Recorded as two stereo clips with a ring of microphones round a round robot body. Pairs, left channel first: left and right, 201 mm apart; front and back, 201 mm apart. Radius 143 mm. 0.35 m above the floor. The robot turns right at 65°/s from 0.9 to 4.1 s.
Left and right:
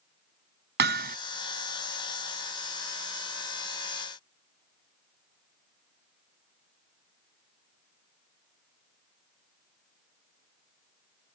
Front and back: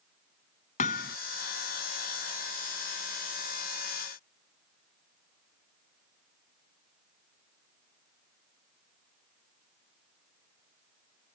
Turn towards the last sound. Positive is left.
turn(degrees=145)